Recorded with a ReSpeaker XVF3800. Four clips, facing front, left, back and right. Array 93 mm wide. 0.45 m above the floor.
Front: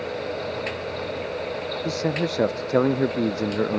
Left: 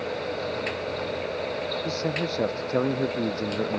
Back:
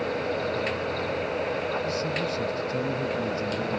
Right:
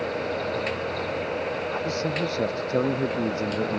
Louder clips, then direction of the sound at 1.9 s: Right 1 dB, front 3 dB; 5° right.